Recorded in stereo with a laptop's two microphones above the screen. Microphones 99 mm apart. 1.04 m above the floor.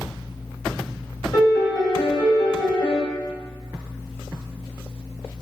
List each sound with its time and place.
1.3 s a piano: 40° left (ahead or behind), 1.1 m